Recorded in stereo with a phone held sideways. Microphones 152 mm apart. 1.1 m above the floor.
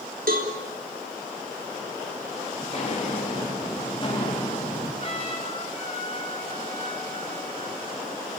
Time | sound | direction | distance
0.3 | a cowbell | 75° right (ahead or behind) | 3.5 m
2.6 | footsteps | 40° left (ahead or behind) | 6 m
5.0 | a trumpet | 40° left (ahead or behind) | 5 m